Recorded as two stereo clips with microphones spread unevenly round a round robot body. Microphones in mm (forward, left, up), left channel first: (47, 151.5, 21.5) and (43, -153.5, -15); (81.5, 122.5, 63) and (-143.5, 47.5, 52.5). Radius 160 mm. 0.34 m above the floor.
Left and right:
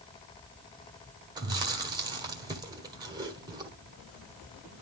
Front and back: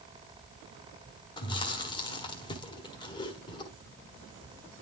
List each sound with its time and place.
1.4 s chewing: 40° right, 1.4 m